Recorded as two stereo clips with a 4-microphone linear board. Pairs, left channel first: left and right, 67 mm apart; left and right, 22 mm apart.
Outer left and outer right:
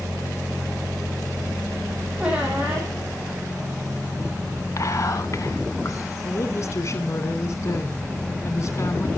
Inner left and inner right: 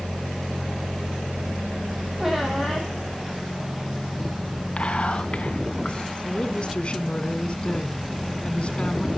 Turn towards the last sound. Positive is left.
turn(degrees=50)  # may be behind; listen again after turning